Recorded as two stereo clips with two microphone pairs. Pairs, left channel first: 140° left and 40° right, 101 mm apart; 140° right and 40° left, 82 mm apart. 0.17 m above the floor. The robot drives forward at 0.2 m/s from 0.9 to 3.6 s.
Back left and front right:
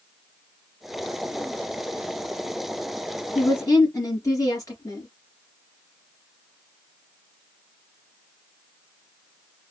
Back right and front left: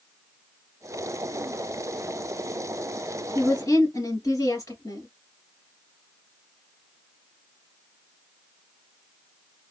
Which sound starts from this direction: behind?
A woman speaking, at 3.4 s.